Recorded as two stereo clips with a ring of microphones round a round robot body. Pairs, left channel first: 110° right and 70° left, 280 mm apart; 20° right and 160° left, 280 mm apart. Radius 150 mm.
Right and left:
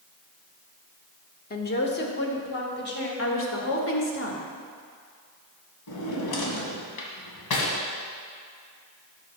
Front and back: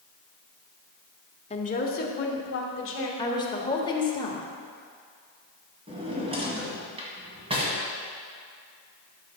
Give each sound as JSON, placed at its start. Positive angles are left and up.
{"t": 1.5, "sound": "a woman speaking", "azimuth_deg": -80, "distance_m": 1.1}
{"t": 3.2, "sound": "a woman speaking", "azimuth_deg": -90, "distance_m": 1.6}
{"t": 5.9, "sound": "a drawer", "azimuth_deg": -130, "distance_m": 1.8}